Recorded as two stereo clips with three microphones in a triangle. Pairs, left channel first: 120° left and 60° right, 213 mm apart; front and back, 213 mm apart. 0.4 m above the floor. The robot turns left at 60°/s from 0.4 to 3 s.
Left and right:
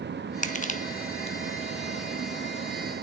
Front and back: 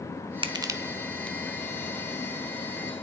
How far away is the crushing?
About 0.8 m.